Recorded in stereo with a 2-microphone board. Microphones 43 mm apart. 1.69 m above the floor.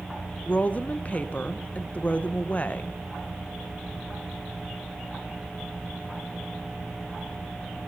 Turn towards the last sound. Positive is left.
turn(degrees=35)  # may be behind; listen again after turning